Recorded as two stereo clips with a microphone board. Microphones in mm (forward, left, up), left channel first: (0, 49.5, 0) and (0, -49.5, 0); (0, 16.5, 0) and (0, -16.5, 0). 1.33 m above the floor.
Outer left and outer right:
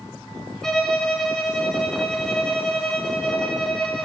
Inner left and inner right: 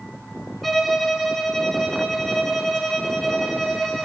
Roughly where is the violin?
Centre.